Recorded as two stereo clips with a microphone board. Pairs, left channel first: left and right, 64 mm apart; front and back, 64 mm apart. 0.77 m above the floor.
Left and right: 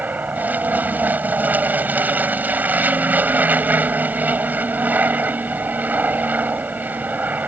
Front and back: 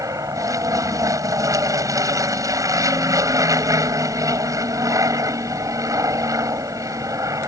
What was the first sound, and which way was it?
An aircraft, 150° right.